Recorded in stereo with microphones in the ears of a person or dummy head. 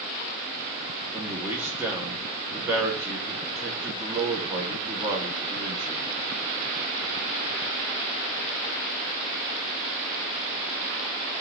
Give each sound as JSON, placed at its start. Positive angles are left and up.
{"t": 1.1, "sound": "a man speaking", "side_deg": -10, "distance_m": 1.2}